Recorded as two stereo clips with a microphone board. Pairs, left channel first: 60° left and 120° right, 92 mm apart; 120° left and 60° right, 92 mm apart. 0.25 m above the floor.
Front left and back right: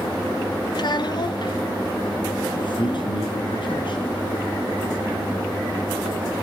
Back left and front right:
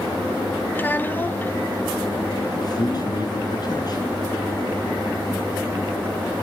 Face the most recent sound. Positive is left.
turn(degrees=80)